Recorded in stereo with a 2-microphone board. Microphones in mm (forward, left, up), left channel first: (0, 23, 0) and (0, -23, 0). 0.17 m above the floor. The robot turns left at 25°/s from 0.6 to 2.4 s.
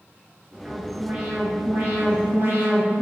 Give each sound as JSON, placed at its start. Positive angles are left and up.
{"t": 0.7, "sound": "an alarm", "azimuth_deg": -25, "distance_m": 2.5}